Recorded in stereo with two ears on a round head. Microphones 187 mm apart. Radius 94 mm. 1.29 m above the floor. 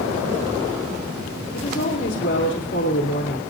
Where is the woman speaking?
50° left (ahead or behind), 3 m.